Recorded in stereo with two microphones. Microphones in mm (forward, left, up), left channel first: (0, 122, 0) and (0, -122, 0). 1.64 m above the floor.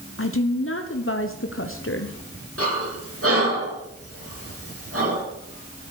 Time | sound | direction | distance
0.2 | a woman speaking | 60° left (ahead or behind) | 0.9 m
2.6 | breathing | 65° right (ahead or behind) | 5.5 m